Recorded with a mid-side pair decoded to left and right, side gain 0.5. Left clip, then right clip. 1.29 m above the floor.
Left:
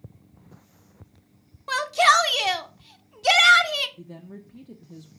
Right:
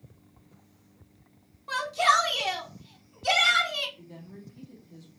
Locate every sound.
1.7 s a shout: 55° left, 0.7 m
4.0 s a woman speaking: 70° left, 0.6 m